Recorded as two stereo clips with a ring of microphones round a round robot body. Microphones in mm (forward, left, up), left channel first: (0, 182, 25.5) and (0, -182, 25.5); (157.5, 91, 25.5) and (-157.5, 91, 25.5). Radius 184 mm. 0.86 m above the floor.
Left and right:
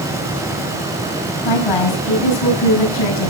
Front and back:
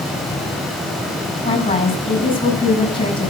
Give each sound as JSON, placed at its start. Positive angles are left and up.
{"t": 1.4, "sound": "a woman speaking", "azimuth_deg": 75, "distance_m": 5.5}